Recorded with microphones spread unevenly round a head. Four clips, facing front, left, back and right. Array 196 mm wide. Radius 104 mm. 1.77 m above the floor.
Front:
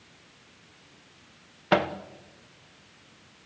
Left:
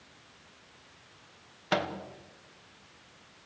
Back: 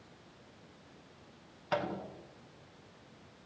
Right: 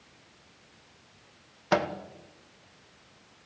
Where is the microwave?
20° right, 1.5 m.